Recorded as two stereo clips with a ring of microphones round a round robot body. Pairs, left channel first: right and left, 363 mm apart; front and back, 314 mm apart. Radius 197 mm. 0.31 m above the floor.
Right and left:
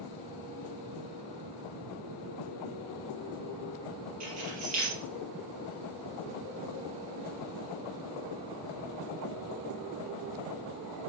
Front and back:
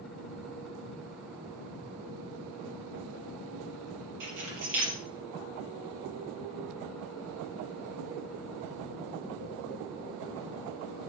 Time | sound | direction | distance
4.2 | keys jangling | 160° left | 5 m